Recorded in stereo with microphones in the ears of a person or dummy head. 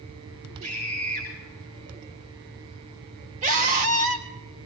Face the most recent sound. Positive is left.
turn(degrees=-45)  # may be behind; listen again after turning